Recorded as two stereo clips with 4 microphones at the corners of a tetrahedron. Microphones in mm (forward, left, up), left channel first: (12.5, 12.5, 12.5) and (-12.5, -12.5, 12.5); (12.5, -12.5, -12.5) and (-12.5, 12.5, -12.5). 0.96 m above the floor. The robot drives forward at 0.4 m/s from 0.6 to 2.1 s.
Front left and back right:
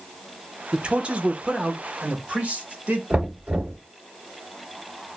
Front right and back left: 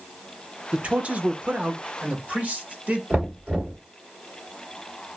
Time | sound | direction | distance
0.7 | a man speaking | straight behind | 0.6 m
3.1 | knocking | 165° left | 1.7 m